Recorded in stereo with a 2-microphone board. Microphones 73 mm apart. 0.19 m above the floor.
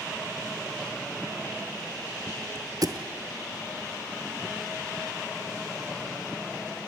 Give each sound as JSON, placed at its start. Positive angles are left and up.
{"t": 2.8, "sound": "a thud", "side_deg": -55, "distance_m": 1.5}